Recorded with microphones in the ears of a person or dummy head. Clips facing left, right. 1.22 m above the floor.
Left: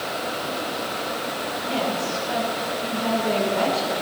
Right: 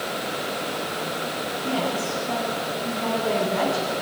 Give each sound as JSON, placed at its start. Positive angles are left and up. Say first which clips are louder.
{"t": 1.6, "sound": "a woman speaking", "louder": "even", "side_deg": -45, "distance_m": 9.5}